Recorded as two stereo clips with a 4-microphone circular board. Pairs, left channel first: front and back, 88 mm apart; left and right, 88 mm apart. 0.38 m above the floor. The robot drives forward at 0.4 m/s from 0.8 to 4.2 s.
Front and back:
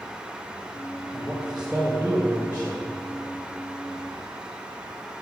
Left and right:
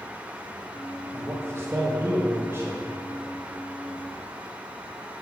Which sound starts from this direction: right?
A man speaking, at 1.1 s.